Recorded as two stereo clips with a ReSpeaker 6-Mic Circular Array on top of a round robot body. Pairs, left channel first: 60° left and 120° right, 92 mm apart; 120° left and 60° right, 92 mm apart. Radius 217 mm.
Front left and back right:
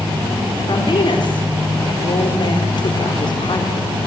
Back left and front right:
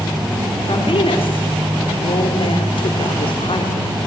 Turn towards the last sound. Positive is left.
turn(degrees=95)